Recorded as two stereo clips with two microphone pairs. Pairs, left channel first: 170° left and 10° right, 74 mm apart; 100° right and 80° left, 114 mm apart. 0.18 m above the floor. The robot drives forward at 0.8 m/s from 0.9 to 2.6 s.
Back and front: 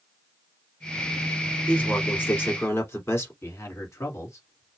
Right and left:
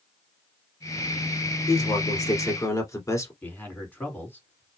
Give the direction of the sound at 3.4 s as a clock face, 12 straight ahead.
6 o'clock.